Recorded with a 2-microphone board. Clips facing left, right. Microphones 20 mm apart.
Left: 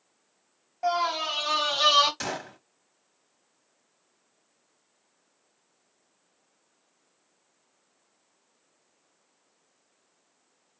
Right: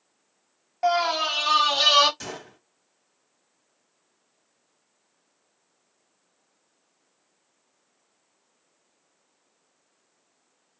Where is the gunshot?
35° left (ahead or behind), 1.1 m.